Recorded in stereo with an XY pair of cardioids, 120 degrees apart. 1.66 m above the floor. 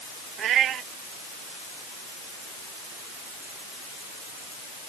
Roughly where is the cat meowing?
Ahead right.